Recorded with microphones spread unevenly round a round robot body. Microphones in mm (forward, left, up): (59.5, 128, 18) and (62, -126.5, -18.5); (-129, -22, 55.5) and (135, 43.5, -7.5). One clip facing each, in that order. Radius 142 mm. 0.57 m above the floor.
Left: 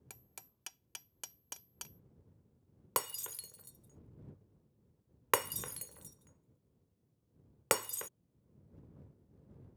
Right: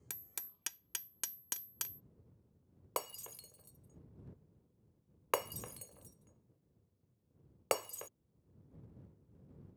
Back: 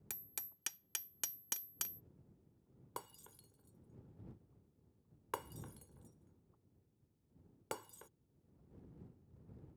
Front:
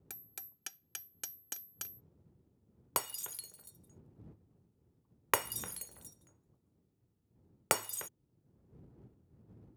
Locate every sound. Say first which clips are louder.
0.1 s hammering: right 2 dB, front 1 dB; 75° right
3.0 s breaking glass: left 2 dB, front 9 dB; 25° left